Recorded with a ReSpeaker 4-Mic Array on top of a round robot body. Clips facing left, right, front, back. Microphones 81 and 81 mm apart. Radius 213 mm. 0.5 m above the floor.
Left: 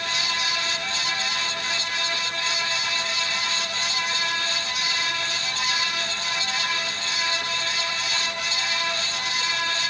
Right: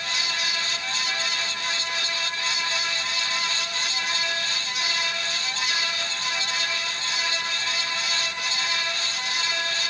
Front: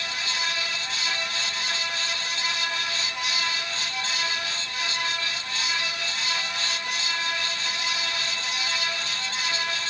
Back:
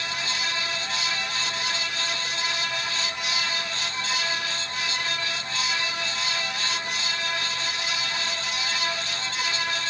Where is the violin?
No violin in this recording.